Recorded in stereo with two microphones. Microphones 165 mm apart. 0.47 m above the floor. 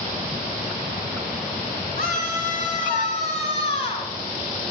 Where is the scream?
70° left (ahead or behind), 4 m; by 4.1 s 35° left (ahead or behind), 5 m.